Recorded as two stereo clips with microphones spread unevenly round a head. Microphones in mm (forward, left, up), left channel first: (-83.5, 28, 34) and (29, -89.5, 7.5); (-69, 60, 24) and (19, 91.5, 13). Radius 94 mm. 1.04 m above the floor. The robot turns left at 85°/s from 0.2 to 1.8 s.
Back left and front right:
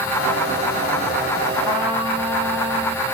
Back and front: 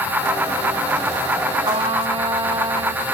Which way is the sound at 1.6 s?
45° left.